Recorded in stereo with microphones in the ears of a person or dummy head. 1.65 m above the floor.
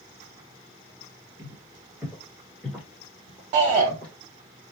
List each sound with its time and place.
1.4 s footsteps: 20° right (ahead or behind), 1.9 m; by 4.1 s 35° left (ahead or behind), 2 m
3.5 s a shout: 20° right (ahead or behind), 0.5 m